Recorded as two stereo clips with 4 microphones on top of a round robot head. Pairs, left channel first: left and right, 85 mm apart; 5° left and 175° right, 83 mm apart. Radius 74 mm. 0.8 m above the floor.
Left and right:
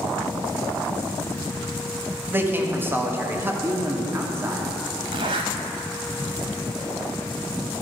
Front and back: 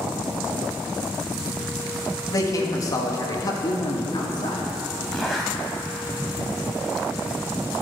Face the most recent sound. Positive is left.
turn(degrees=-85)